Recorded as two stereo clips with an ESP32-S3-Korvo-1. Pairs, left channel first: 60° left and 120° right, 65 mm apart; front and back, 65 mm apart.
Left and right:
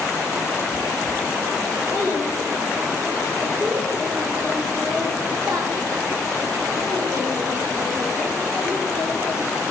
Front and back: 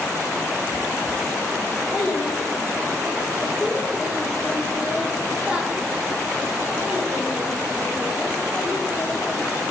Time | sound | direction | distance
1.9 | a child speaking | 60° right | 2.5 m